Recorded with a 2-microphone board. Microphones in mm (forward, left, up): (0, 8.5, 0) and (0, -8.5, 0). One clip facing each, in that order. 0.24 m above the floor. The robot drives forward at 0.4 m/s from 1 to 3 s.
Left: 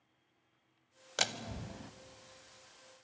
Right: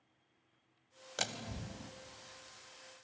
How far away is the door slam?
About 0.7 m.